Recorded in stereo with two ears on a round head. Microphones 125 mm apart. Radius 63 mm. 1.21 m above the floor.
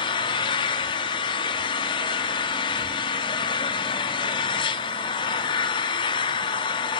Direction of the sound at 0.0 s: 35° left (ahead or behind).